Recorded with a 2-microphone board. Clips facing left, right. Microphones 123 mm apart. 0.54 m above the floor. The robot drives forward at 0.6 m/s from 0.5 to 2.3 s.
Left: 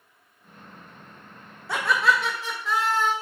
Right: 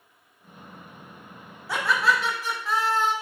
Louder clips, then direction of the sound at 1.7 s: Left 1 dB; centre (ahead or behind).